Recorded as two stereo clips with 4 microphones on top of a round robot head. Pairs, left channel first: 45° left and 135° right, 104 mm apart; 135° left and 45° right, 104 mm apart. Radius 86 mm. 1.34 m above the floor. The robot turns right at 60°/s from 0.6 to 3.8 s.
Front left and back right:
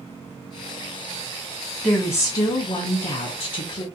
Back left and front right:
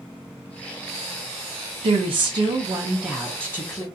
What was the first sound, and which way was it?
A woman speaking, 35° right.